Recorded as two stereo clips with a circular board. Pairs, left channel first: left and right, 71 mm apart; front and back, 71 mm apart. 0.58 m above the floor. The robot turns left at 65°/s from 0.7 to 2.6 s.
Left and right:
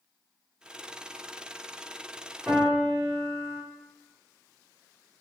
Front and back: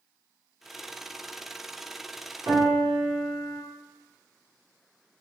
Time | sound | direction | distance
2.5 | a piano | 175° left | 1.1 m